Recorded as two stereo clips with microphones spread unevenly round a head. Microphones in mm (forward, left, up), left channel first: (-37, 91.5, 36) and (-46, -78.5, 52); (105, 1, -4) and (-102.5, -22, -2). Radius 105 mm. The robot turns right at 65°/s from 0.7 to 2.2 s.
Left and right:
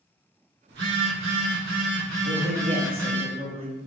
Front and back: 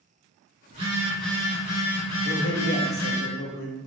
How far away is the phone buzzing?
About 1.5 m.